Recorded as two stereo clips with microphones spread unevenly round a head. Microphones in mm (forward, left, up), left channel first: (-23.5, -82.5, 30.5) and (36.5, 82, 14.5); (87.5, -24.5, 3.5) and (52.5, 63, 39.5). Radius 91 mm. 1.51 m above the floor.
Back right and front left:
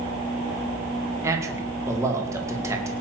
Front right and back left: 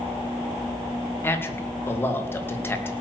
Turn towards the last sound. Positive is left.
turn(degrees=-5)